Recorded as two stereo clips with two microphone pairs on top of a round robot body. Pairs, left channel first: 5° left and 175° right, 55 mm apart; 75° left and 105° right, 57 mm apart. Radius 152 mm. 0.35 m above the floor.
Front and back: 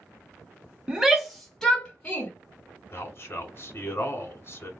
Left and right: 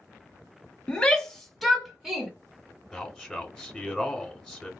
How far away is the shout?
About 1.3 m.